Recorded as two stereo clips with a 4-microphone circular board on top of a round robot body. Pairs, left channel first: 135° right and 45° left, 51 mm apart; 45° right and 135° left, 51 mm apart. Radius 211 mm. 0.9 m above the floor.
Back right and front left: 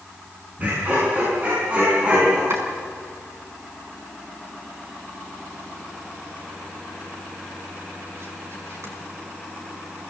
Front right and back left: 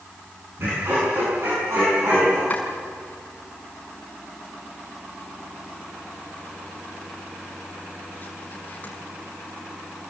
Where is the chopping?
15° left, 4.5 m.